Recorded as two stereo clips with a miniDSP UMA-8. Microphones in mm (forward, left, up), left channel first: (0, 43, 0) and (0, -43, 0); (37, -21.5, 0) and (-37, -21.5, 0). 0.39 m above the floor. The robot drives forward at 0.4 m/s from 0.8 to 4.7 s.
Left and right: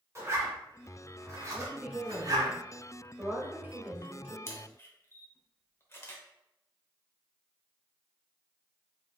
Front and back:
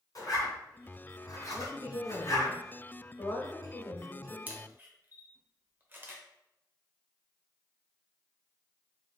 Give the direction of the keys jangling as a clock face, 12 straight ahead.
No keys jangling in this recording.